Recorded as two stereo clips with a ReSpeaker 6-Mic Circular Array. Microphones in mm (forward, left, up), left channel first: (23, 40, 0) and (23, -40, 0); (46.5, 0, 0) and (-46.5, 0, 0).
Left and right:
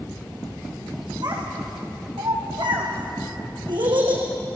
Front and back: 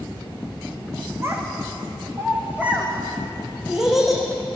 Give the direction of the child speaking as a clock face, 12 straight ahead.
4 o'clock.